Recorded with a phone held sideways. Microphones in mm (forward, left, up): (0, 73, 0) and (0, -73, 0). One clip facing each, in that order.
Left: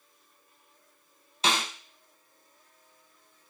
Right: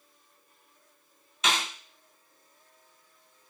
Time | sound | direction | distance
1.4 | a snare drum | 35° left (ahead or behind) | 0.8 m